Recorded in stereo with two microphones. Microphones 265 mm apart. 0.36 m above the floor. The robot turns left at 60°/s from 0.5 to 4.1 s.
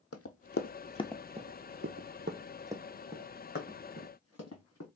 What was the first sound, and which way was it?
Running footsteps, 70° left (ahead or behind).